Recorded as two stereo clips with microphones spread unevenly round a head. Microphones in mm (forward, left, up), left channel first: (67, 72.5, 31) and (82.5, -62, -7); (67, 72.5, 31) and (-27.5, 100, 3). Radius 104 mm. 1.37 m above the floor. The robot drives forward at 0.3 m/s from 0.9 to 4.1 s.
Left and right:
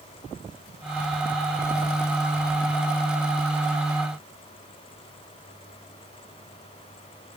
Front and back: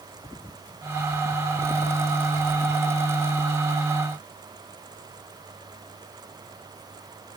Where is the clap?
I don't hear a clap.